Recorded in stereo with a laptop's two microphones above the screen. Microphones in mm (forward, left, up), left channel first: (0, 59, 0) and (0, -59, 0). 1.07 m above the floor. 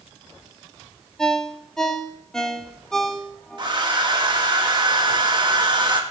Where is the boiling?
I don't hear boiling.